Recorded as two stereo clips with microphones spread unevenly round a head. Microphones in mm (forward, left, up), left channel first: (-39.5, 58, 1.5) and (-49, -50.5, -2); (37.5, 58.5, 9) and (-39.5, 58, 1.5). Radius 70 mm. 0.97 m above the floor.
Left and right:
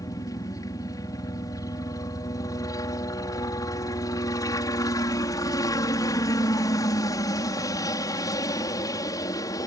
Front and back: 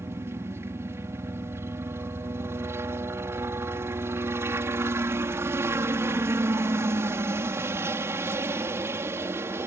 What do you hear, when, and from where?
0.0 s a helicopter: 135° left